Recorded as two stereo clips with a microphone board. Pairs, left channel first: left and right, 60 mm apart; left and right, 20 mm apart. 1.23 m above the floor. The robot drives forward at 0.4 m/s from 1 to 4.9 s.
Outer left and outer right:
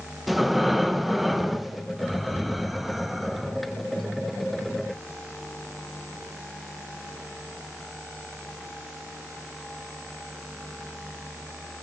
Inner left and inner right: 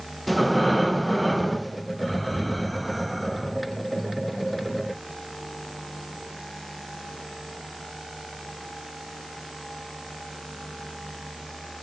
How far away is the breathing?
About 1.2 m.